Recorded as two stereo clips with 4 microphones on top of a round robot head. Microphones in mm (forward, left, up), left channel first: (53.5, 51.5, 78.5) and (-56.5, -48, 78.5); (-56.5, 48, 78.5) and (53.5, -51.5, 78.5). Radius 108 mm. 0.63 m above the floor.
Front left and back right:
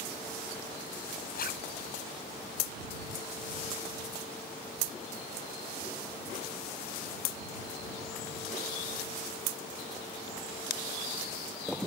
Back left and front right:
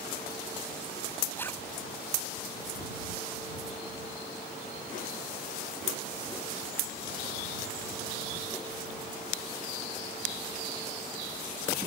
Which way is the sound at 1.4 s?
60° left.